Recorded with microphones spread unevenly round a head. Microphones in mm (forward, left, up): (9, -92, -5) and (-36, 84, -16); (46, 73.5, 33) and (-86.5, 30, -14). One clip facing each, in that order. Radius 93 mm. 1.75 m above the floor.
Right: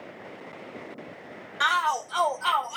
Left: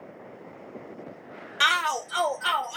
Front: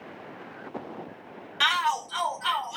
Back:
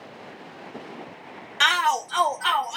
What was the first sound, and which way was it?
A shout, 160° left.